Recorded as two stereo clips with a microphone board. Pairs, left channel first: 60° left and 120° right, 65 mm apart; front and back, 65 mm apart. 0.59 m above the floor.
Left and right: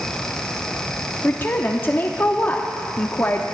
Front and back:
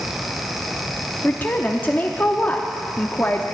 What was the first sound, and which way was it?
A woman speaking, 35° left.